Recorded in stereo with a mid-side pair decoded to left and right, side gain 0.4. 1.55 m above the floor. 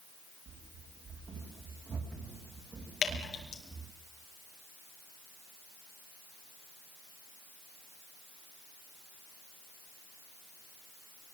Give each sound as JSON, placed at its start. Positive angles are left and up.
{"t": 0.5, "sound": "running footsteps", "azimuth_deg": -60, "distance_m": 8.5}
{"t": 3.0, "sound": "dripping", "azimuth_deg": 65, "distance_m": 5.0}